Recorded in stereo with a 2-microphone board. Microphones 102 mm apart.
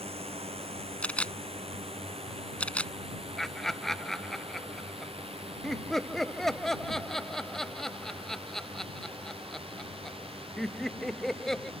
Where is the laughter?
5° left (ahead or behind).